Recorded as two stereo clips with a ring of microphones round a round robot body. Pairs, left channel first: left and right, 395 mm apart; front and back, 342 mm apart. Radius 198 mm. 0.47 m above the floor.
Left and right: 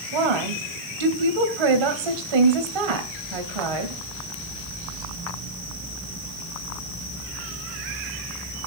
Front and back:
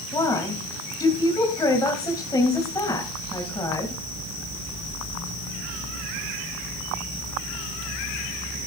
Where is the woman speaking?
80° right, 3 m.